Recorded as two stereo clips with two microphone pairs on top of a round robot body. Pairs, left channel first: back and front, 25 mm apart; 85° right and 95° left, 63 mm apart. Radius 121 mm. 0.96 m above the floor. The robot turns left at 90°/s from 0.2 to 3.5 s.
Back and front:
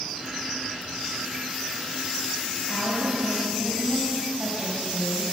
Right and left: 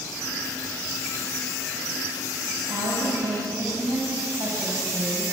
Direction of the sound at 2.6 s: 145° left.